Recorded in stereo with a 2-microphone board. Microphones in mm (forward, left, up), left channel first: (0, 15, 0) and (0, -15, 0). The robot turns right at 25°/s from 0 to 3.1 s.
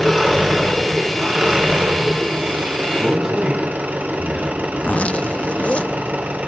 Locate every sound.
0.0 s an engine running: 175° right, 3 m; by 6.5 s 95° right, 3 m
3.0 s a man speaking: 15° right (ahead or behind), 9 m; by 4.7 s 10° right (ahead or behind), 9 m
4.8 s a zipper: 50° left (ahead or behind), 0.5 m